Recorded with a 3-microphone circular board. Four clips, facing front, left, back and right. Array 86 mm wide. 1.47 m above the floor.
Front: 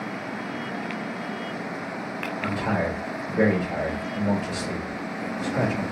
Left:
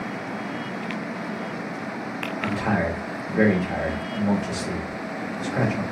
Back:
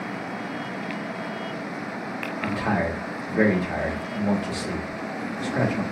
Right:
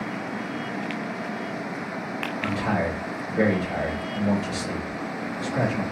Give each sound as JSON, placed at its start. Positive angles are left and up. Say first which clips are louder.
{"t": 2.4, "sound": "a man speaking", "louder": "left 2 dB, back 1 dB", "azimuth_deg": 145, "distance_m": 1.3}